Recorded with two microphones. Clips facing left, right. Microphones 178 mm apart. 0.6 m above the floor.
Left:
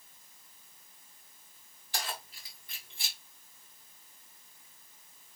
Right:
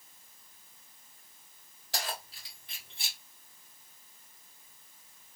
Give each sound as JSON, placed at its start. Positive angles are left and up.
{"t": 1.9, "sound": "keys jangling", "side_deg": -80, "distance_m": 2.5}